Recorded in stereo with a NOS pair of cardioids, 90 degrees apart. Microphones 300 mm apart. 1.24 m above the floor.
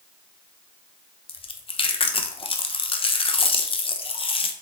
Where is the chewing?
20° left, 0.5 m.